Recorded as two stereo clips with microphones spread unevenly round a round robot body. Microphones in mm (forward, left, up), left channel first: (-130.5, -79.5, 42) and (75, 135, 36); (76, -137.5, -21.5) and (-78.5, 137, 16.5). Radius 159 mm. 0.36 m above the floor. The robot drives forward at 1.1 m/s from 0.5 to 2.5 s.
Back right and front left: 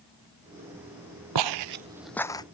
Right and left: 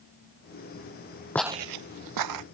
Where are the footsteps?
25° left; by 2.4 s 150° left.